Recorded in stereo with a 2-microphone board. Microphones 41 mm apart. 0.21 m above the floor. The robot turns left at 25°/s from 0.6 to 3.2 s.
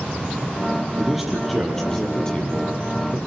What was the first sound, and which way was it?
A man speaking, 170° right.